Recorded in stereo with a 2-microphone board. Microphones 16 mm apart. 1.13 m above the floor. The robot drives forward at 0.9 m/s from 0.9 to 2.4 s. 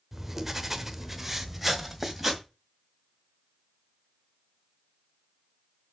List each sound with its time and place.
0.1 s writing: 20° right (ahead or behind), 1.0 m; by 2.4 s 10° right (ahead or behind), 2 m